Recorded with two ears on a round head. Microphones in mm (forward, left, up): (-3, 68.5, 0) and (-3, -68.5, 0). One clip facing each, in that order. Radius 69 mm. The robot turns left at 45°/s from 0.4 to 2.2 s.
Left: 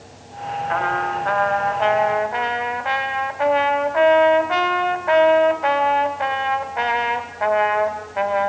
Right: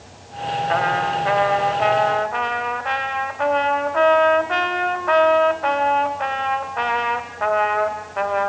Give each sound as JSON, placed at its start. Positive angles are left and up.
{"t": 0.7, "sound": "a trumpet", "azimuth_deg": -120, "distance_m": 2.0}